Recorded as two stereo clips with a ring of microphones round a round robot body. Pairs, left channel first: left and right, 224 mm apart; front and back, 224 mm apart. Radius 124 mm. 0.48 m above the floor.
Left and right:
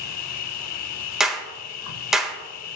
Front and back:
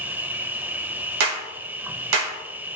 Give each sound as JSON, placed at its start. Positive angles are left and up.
{"t": 0.0, "sound": "an insect", "azimuth_deg": 95, "distance_m": 0.7}
{"t": 1.2, "sound": "a clap", "azimuth_deg": 180, "distance_m": 1.5}